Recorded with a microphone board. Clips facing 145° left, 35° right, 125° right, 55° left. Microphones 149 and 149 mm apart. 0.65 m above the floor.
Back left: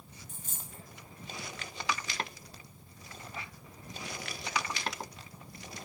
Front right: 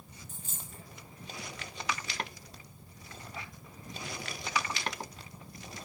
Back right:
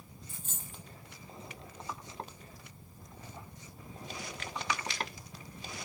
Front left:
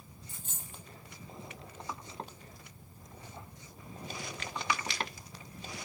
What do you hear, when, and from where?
0.3 s a dropped coin: 110° left, 1.9 m